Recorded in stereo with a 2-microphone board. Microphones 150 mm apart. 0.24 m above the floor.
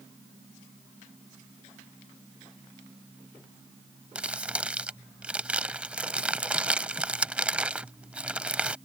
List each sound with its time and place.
4.2 s crumpling: 10° right (ahead or behind)